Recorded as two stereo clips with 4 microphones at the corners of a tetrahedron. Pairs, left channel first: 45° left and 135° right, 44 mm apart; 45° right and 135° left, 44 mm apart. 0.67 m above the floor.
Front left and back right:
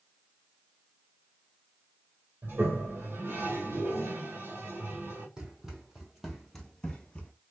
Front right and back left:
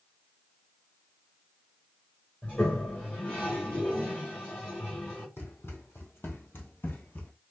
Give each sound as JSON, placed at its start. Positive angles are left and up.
{"t": 2.4, "sound": "a toilet flushing", "azimuth_deg": -105, "distance_m": 2.0}
{"t": 5.4, "sound": "running footsteps", "azimuth_deg": -65, "distance_m": 1.7}